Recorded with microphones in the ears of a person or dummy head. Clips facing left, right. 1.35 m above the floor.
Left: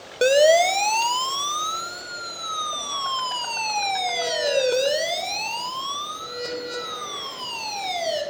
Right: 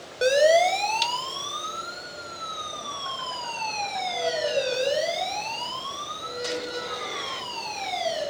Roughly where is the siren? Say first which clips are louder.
Left 3 dB; left.